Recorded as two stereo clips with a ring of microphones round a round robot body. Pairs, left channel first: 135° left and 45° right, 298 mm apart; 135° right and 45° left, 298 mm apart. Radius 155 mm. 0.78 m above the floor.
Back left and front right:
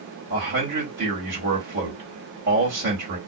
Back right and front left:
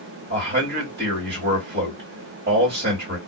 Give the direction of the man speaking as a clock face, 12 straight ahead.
12 o'clock.